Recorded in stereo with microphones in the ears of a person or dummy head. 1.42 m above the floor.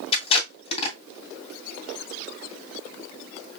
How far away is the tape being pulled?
About 2.5 m.